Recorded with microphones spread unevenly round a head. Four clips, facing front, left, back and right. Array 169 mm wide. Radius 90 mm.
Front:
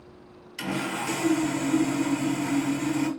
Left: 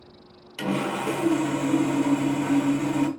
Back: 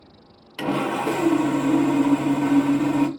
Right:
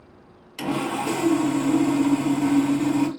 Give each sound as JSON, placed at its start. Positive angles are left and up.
{"t": 0.6, "sound": "sawing", "azimuth_deg": 175, "distance_m": 0.7}